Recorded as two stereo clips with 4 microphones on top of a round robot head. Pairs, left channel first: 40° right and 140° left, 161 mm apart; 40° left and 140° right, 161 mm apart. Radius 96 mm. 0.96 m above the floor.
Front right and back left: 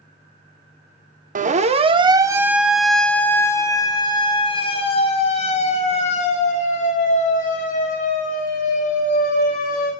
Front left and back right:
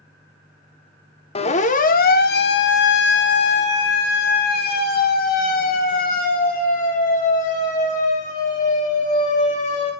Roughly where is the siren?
Left.